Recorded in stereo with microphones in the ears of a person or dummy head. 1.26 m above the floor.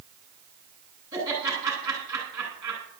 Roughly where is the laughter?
Right.